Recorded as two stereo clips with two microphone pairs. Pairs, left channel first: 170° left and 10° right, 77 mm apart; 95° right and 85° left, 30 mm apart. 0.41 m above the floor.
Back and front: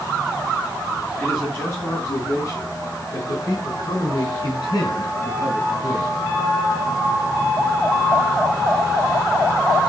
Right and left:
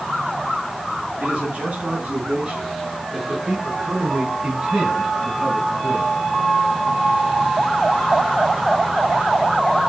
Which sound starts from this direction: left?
A man speaking, at 1.2 s.